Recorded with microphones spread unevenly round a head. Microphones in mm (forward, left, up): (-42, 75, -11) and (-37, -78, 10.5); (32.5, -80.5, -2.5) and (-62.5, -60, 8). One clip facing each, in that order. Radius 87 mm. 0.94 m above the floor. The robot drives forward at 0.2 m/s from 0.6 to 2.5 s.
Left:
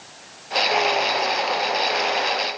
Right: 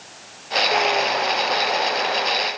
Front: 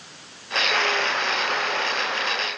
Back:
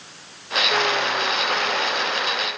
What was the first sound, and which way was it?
Only background noise.